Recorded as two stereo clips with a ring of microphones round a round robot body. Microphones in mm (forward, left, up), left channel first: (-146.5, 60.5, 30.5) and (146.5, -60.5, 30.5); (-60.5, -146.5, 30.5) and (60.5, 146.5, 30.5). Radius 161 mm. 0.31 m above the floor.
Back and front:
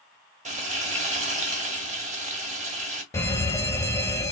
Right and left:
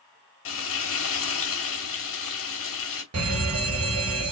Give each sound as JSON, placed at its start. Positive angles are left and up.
{"t": 0.5, "sound": "frying", "azimuth_deg": -85, "distance_m": 1.7}
{"t": 3.1, "sound": "an alarm", "azimuth_deg": 80, "distance_m": 1.4}